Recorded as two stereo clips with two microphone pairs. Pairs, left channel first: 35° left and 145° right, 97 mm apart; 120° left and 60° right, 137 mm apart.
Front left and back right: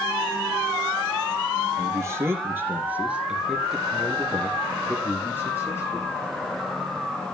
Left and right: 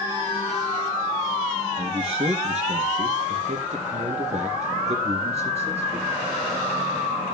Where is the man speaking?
95° right, 2.5 m; by 6.1 s 20° right, 3 m.